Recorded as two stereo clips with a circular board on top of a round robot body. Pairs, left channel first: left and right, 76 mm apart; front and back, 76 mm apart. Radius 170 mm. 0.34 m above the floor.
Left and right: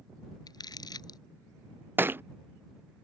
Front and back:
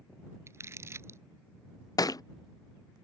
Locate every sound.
0.5 s crumpling: 125° left
2.0 s a thud: 30° right